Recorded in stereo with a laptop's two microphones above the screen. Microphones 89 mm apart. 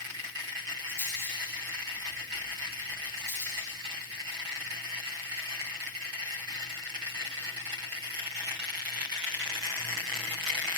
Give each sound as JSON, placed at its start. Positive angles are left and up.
{"t": 0.9, "sound": "a rattle", "side_deg": 30, "distance_m": 5.5}